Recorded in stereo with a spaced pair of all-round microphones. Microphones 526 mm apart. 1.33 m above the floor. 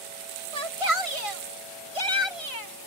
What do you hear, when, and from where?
0.5 s a shout: 70° right (ahead or behind); by 2.9 s 80° right